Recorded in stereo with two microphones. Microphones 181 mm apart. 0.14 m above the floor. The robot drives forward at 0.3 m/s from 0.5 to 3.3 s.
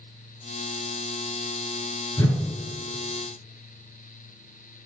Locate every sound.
2.2 s a whoosh: 10° left (ahead or behind), 1.0 m; by 2.4 s 15° left (ahead or behind), 0.9 m